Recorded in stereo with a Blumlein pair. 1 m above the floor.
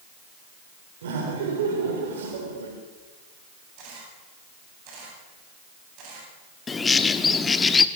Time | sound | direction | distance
1.0 | laughter | 60° right | 4 m
3.8 | a camera shutter | 40° right | 8.5 m
6.7 | a bird | 15° left | 1.0 m